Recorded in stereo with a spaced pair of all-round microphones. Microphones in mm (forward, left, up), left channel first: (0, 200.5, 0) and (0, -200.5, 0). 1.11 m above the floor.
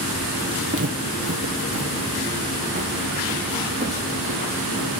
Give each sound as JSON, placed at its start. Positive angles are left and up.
{"t": 0.7, "sound": "footsteps", "side_deg": -35, "distance_m": 1.3}